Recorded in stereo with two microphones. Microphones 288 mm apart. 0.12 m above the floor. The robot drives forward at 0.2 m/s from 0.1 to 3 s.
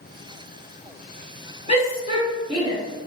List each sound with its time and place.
1.7 s a shout: 20° right (ahead or behind), 1.4 m; by 2.8 s 15° right (ahead or behind), 1.5 m